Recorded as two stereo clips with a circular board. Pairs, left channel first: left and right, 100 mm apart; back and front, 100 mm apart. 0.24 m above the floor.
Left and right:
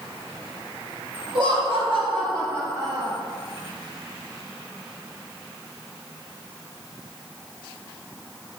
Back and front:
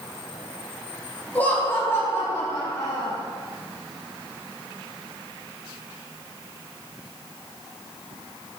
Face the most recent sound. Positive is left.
turn(degrees=-135)